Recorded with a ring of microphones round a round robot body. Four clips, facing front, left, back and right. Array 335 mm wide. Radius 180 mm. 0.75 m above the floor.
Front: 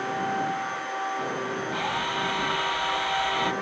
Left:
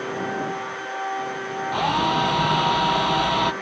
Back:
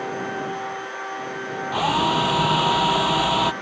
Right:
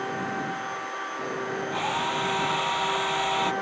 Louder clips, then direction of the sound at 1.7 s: Left 9 dB, back 12 dB; 145° left.